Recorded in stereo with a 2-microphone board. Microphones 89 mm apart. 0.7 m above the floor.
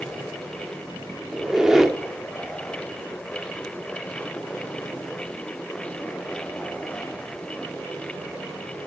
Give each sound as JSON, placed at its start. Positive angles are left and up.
{"t": 1.3, "sound": "a squeak", "side_deg": -5, "distance_m": 0.7}